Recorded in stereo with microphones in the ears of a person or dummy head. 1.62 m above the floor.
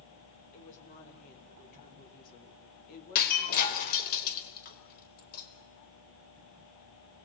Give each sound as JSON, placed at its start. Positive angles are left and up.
{"t": 0.5, "sound": "a woman speaking", "side_deg": 40, "distance_m": 6.0}
{"t": 3.1, "sound": "breaking glass", "side_deg": 50, "distance_m": 4.0}